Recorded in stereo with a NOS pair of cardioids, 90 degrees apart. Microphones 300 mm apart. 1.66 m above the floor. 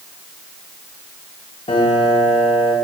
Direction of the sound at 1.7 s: 20° left.